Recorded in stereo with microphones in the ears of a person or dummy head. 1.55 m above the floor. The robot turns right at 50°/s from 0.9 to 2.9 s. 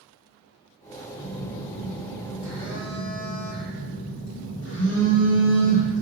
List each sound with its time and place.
1.2 s a phone buzzing: 35° left, 0.9 m; by 6.0 s 125° left, 0.9 m